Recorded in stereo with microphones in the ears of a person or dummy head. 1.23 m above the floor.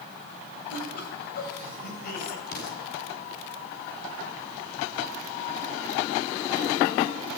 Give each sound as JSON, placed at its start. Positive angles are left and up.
{"t": 0.7, "sound": "laughter", "side_deg": 60, "distance_m": 8.0}
{"t": 2.5, "sound": "an explosion", "side_deg": 60, "distance_m": 7.0}